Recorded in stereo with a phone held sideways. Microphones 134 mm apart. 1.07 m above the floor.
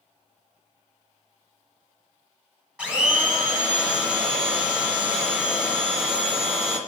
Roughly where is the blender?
Centre.